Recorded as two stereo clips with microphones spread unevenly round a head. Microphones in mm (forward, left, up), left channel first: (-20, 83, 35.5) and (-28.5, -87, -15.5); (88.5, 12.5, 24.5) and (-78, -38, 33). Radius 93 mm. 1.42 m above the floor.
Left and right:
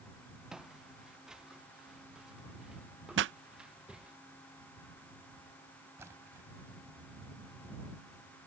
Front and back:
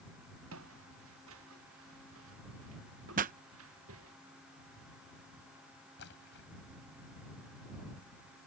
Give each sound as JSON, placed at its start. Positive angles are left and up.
{"t": 0.5, "sound": "footsteps", "azimuth_deg": 180}
{"t": 3.2, "sound": "a pop", "azimuth_deg": -120}
{"t": 6.0, "sound": "a splash", "azimuth_deg": -10}